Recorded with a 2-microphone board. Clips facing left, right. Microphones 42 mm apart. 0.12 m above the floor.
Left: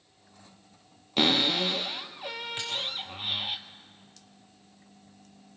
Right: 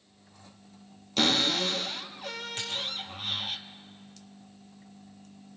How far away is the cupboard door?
About 1.3 m.